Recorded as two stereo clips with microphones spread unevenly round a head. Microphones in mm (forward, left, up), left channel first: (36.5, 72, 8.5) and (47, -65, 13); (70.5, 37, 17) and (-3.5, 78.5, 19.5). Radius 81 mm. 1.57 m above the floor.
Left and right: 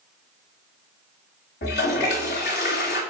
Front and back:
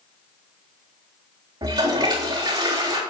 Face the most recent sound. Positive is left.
turn(degrees=110)